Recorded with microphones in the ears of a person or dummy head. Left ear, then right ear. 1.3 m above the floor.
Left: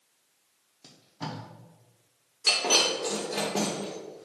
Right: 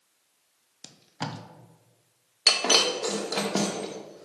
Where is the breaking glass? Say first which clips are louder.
Right 2 dB; 45° right (ahead or behind), 0.8 m.